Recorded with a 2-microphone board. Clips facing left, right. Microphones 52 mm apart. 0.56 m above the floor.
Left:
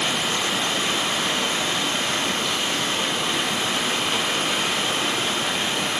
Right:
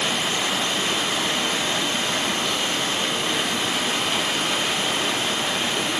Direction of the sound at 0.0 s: 10° right (ahead or behind).